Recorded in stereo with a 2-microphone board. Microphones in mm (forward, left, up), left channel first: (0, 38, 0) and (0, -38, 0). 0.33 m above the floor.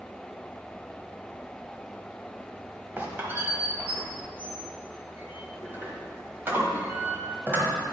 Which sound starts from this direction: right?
A squeak, at 3.0 s.